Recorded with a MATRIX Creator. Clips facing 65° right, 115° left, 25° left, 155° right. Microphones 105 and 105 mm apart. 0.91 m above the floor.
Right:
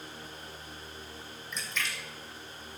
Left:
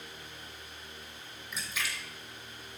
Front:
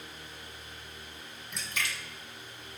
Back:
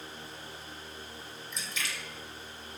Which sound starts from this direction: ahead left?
A splash, at 1.5 s.